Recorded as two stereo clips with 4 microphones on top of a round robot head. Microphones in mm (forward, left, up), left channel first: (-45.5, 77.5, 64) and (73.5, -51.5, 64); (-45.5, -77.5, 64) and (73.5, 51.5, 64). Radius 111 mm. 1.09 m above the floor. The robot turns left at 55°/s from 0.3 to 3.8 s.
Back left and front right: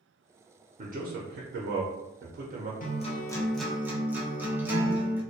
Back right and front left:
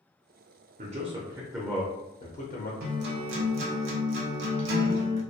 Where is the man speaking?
5° left, 0.6 m; by 2.7 s 100° right, 0.6 m.